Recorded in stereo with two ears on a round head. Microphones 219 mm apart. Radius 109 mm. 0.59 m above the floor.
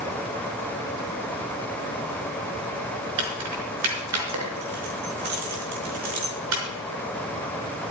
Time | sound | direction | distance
3.2 | keys jangling | 70° right (ahead or behind) | 4.5 m